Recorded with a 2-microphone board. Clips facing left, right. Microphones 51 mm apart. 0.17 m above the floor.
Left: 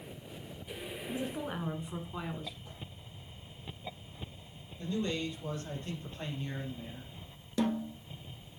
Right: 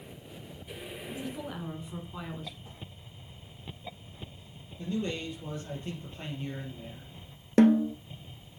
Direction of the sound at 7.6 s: 60° right (ahead or behind).